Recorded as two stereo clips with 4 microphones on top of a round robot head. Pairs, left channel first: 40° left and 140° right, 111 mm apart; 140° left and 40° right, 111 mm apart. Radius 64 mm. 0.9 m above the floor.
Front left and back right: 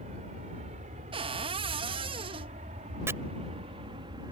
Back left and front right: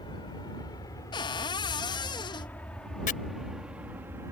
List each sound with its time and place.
0.0 s an aircraft: 170° right; by 4.3 s 100° right
1.1 s a cupboard door: 175° right
3.1 s chopping: 150° left